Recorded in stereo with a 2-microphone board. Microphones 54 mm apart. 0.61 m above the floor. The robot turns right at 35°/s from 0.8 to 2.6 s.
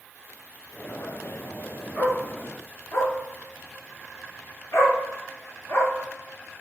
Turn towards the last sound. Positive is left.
turn(degrees=50)  # may be behind; listen again after turning